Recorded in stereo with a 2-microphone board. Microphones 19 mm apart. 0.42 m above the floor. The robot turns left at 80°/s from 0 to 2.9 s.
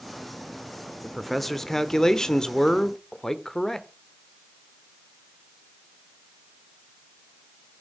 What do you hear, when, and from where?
1.0 s a man speaking: 170° right, 1.0 m; by 3.9 s 45° left, 1.0 m